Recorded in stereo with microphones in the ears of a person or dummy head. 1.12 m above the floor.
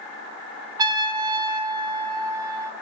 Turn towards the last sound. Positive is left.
turn(degrees=-20)  # may be behind; listen again after turning